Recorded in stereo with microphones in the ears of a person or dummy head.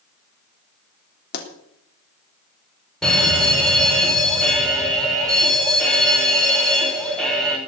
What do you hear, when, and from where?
1.3 s a pop: 60° left (ahead or behind), 3 m
3.0 s a fire alarm: 5° right (ahead or behind), 3 m